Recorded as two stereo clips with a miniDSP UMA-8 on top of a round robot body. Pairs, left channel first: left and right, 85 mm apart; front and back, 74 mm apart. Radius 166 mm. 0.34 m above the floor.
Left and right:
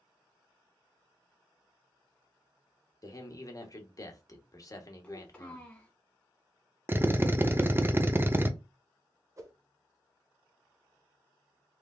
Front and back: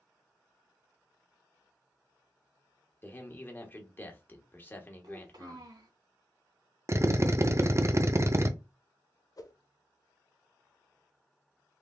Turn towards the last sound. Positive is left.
turn(degrees=-35)